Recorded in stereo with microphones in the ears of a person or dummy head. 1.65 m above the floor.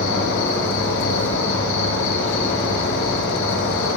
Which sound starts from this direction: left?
An insect, at 0.0 s.